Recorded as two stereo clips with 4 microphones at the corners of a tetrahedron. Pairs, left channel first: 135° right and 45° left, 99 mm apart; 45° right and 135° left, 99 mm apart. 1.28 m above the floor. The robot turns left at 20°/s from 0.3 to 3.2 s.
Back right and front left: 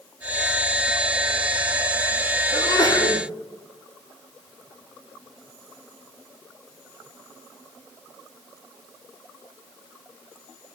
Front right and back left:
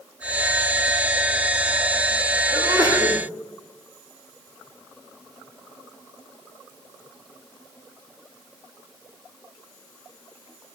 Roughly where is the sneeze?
Behind.